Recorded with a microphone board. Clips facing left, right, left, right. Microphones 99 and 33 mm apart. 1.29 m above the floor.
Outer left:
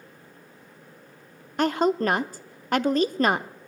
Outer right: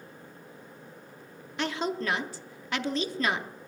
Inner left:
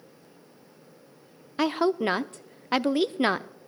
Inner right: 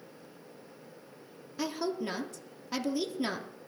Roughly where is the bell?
No bell in this recording.